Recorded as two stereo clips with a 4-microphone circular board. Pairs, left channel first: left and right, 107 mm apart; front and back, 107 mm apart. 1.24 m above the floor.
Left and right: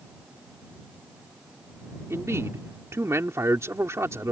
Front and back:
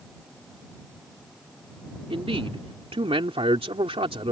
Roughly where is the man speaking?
Behind right.